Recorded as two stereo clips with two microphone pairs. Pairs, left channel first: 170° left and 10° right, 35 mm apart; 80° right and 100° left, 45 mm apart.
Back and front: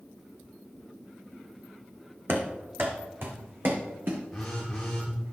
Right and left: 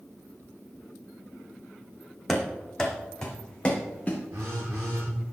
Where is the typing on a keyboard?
I don't hear typing on a keyboard.